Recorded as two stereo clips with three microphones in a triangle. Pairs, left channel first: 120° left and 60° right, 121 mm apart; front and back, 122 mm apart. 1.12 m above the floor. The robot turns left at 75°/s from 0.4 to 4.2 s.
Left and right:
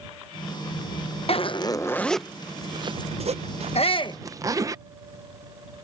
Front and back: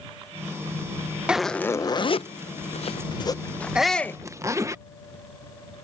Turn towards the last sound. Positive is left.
turn(degrees=65)